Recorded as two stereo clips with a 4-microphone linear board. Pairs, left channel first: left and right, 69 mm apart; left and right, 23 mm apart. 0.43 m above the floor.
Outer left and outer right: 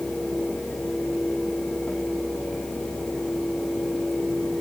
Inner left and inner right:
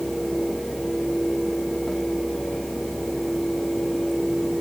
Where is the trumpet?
No trumpet in this recording.